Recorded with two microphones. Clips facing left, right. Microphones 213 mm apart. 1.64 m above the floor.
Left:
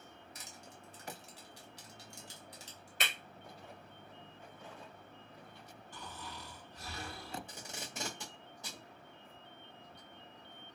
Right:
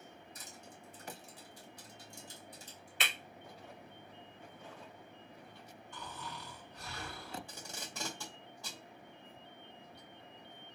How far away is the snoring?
About 2 m.